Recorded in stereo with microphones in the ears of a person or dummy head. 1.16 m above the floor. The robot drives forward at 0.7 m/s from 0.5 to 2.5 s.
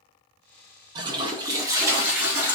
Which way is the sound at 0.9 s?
25° right (ahead or behind).